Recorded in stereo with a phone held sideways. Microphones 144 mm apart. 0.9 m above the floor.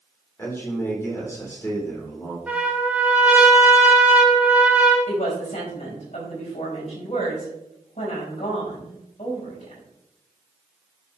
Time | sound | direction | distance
0.4 | a man speaking | 20° left (ahead or behind) | 3.5 m
2.5 | a trumpet | 10° right (ahead or behind) | 1.9 m
5.1 | a woman speaking | 55° left (ahead or behind) | 4.5 m